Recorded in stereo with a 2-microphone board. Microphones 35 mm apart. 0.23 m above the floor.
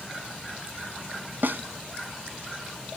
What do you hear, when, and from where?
1.4 s a snare drum: 65° right (ahead or behind), 0.5 m